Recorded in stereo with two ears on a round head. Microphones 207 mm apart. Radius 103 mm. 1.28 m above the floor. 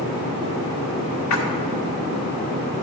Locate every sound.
1.3 s a splash: 60° left (ahead or behind), 1.5 m